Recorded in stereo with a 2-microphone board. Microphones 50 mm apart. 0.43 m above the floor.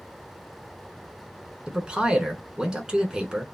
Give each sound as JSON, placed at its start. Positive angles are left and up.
{"t": 1.7, "sound": "a man speaking", "side_deg": -15, "distance_m": 1.3}